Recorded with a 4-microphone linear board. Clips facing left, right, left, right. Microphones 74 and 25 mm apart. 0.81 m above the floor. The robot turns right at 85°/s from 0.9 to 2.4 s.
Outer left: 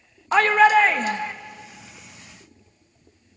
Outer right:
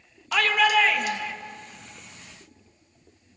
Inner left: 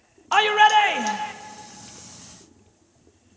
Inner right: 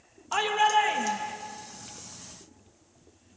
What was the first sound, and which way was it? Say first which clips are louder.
A shout: outer left 6 dB, inner left 8 dB; 75° left.